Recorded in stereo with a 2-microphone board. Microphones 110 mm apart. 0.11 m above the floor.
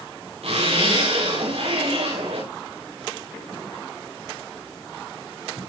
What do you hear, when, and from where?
0.4 s a zipper: 75° right (ahead or behind), 9 m